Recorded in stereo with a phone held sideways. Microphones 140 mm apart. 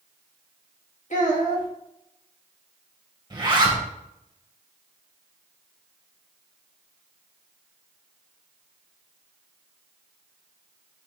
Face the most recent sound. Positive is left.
turn(degrees=-35)  # may be behind; listen again after turning